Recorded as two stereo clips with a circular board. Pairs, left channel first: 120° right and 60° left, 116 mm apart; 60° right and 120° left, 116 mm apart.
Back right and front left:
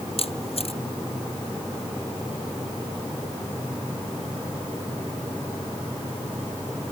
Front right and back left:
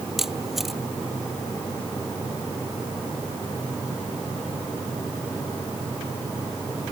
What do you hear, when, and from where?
0.2 s a camera shutter: 150° right